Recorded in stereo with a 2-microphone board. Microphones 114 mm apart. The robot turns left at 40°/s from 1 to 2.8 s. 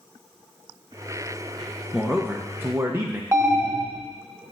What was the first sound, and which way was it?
A man speaking, 5° right.